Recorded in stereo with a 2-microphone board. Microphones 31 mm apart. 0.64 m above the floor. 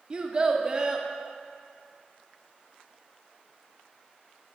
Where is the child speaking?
30° right (ahead or behind), 0.7 m.